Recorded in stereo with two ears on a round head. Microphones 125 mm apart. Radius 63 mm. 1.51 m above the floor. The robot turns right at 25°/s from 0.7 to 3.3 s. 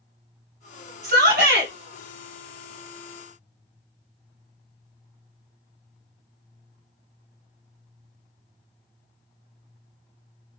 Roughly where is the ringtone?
I don't hear a ringtone.